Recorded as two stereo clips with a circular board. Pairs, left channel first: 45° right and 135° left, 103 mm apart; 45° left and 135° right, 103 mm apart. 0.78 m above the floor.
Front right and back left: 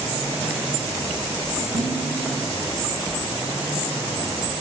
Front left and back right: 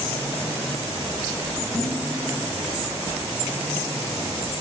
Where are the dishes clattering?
145° left, 4.5 m.